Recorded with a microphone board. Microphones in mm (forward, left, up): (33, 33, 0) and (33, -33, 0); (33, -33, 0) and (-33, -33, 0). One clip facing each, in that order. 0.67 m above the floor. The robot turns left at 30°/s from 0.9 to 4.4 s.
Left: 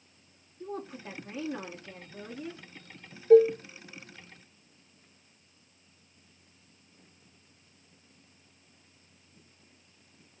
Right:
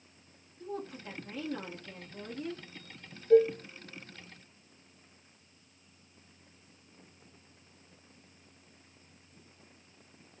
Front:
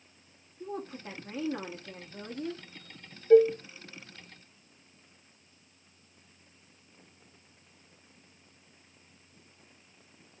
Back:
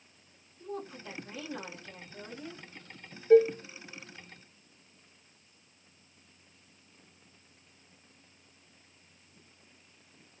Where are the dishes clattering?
90° left, 0.7 m; by 3.6 s 85° left, 0.7 m.